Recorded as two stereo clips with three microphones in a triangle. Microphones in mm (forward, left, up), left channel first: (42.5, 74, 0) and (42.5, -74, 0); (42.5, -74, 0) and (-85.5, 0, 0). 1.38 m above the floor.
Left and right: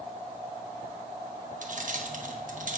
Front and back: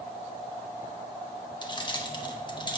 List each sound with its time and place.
1.6 s keys jangling: 85° right, 1.0 m